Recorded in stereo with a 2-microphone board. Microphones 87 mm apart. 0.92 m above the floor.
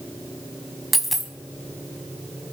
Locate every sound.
0.9 s a dropped coin: centre (ahead or behind), 1.3 m